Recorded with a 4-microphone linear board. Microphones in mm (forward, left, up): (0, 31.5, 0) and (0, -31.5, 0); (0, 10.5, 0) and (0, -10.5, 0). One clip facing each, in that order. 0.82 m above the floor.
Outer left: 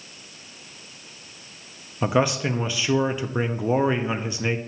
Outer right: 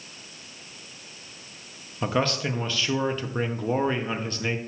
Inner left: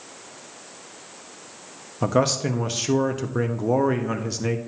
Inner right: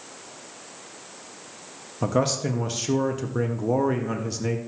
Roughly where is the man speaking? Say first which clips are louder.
Outer left 4 dB, inner left 2 dB; centre.